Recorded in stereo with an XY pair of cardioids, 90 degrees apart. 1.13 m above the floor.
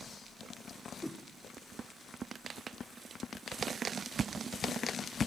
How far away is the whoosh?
About 2 m.